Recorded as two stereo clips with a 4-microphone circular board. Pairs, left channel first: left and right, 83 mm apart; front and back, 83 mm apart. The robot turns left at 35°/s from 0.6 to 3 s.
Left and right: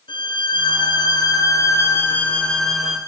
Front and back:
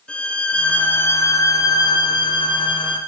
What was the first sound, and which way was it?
A violin, 75° left.